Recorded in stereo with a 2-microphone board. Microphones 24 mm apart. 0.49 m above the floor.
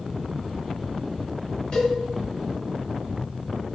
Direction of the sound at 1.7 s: 45° left (ahead or behind).